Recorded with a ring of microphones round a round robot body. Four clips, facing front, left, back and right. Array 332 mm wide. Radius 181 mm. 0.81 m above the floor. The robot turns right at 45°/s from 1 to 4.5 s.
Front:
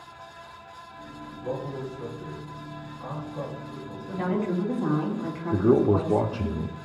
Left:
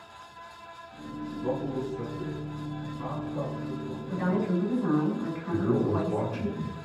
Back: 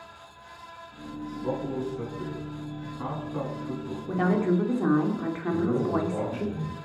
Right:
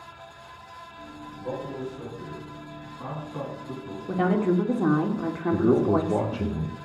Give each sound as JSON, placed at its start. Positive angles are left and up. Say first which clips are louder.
{"t": 1.4, "sound": "a man speaking", "louder": "left 2 dB, back 2 dB", "azimuth_deg": 100, "distance_m": 9.5}
{"t": 4.1, "sound": "a woman speaking", "louder": "right 5 dB, back 3 dB", "azimuth_deg": -120, "distance_m": 3.0}
{"t": 5.5, "sound": "a man speaking", "louder": "right 5 dB, front 7 dB", "azimuth_deg": -30, "distance_m": 1.2}